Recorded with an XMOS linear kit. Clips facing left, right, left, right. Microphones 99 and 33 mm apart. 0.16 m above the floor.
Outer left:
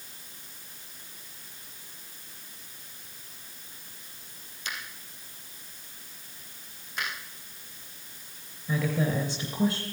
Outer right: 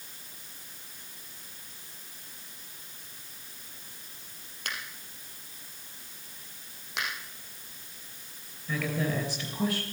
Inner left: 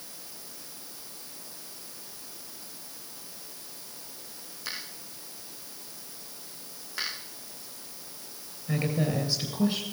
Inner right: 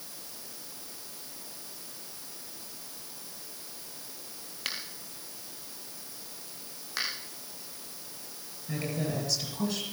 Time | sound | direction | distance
4.7 | a finger snap | 60° right (ahead or behind) | 3 m
7.0 | a finger snap | 80° right | 7 m
8.7 | a woman speaking | 15° left (ahead or behind) | 3 m